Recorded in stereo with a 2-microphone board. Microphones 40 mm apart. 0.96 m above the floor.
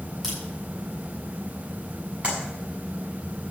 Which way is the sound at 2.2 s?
35° right (ahead or behind).